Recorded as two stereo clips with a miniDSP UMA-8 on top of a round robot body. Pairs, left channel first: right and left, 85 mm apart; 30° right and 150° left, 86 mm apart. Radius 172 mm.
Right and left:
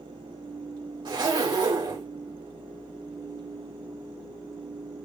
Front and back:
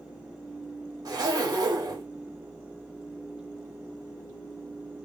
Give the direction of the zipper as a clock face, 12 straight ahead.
8 o'clock.